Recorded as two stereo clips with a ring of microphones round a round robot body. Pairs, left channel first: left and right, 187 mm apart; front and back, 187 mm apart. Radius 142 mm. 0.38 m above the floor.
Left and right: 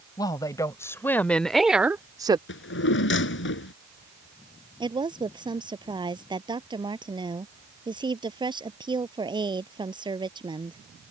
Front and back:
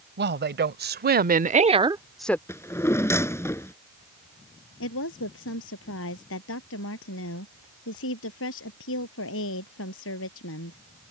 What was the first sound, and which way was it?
A woman speaking, 165° left.